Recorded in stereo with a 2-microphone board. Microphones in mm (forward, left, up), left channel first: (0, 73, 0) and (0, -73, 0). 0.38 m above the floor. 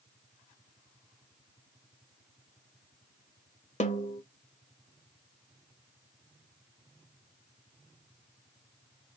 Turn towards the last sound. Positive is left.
turn(degrees=55)  # may be behind; listen again after turning